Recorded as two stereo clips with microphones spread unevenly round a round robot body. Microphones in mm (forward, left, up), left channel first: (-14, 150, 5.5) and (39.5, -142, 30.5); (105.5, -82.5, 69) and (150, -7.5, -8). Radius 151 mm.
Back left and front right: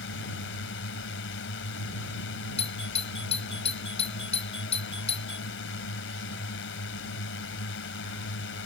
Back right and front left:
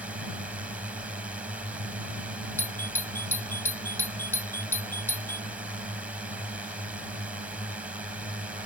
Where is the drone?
60° left.